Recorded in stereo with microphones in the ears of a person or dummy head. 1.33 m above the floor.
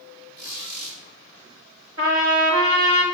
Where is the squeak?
50° right (ahead or behind), 2.5 m.